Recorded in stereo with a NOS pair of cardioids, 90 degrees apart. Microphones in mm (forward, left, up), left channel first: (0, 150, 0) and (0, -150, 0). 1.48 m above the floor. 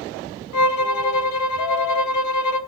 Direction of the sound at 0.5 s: 70° left.